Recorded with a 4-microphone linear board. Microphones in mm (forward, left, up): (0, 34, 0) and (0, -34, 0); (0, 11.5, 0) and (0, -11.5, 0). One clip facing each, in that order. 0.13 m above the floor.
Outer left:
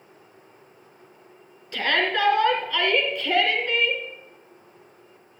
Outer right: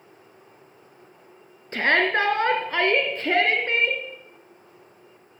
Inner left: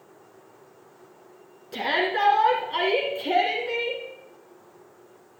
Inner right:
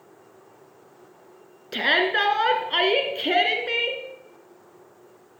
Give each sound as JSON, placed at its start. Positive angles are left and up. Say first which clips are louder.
{"t": 1.7, "sound": "a shout", "louder": "outer right 3 dB, inner right 4 dB", "side_deg": -40, "distance_m": 1.3}